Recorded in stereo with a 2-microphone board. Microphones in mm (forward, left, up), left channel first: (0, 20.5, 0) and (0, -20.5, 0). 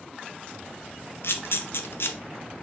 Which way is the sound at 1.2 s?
75° left (ahead or behind).